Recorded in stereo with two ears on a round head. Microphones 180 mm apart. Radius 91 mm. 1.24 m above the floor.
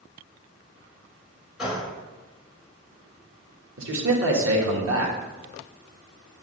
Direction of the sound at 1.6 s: 5° right (ahead or behind).